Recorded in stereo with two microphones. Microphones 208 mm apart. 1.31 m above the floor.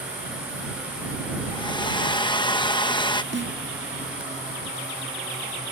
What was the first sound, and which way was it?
A hair dryer, 20° left (ahead or behind).